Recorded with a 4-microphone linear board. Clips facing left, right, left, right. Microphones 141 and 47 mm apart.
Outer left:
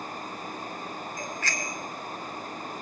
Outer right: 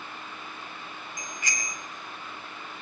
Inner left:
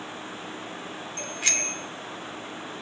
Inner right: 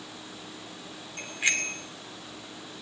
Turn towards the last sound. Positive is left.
turn(degrees=-15)  # may be behind; listen again after turning